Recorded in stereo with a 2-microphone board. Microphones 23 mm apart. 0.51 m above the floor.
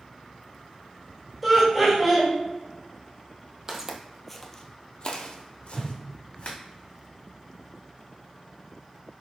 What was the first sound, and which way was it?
Laughter, centre (ahead or behind).